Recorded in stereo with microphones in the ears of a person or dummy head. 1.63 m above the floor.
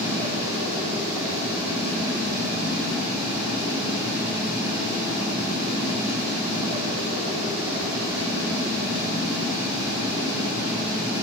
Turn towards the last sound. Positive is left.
turn(degrees=-20)  # may be behind; listen again after turning